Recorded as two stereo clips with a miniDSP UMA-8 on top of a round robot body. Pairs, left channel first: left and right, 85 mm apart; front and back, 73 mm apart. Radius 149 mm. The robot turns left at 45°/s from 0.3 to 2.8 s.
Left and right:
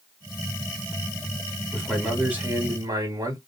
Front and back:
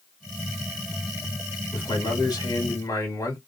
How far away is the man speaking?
About 2.5 m.